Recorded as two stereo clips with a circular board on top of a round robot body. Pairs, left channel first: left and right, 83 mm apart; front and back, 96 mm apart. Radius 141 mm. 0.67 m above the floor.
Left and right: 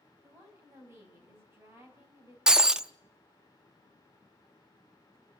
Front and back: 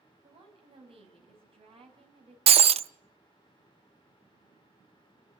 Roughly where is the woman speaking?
Behind right.